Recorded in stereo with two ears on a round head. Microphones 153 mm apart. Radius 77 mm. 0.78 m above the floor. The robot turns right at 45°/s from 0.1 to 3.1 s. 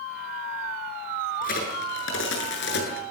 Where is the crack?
50° left, 8.5 m; by 3.0 s 120° left, 8.5 m.